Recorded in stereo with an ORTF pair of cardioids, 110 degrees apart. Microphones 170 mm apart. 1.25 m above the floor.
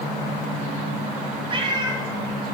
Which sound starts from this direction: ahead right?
A cat meowing, at 1.5 s.